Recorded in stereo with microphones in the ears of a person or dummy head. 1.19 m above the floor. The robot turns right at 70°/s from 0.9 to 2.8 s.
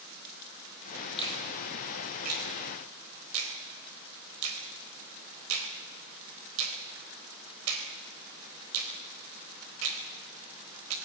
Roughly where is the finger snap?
Left.